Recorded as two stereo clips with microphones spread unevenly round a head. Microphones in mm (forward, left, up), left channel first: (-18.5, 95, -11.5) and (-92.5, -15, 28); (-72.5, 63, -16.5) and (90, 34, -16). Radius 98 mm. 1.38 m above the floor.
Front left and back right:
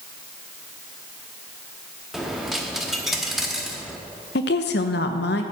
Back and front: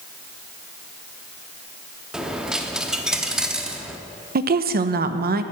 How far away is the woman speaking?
About 0.9 m.